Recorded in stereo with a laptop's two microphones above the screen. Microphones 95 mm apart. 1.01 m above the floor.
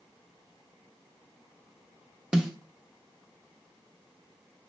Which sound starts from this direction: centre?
A snare drum, at 2.3 s.